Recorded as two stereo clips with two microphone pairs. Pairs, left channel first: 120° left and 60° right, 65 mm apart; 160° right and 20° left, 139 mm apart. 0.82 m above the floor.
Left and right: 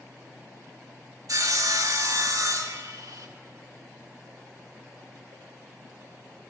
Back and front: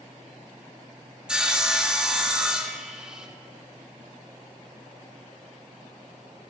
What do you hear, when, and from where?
1.3 s sawing: 65° right, 1.4 m